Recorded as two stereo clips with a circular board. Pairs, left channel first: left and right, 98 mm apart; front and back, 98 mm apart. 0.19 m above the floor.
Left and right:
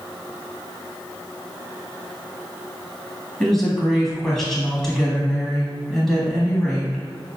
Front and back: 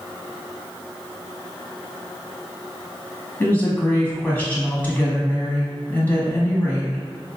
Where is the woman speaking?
15° left, 1.1 m.